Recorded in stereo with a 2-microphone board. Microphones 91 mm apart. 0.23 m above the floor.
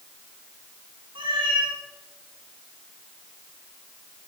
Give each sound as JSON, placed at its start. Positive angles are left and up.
{"t": 1.1, "sound": "a cat meowing", "side_deg": -70, "distance_m": 7.5}